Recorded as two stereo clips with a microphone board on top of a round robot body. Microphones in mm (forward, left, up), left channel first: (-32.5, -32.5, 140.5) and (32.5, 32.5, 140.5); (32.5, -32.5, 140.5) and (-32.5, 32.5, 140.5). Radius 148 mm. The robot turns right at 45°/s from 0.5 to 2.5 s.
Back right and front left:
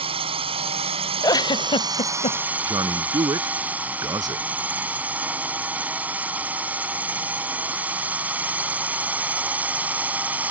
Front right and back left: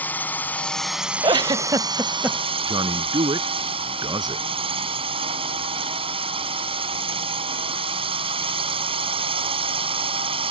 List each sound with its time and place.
0.0 s a drone: 30° left; by 10.5 s 120° left
1.2 s a giggle: 170° left; by 2.4 s 140° right
2.7 s a man speaking: 95° left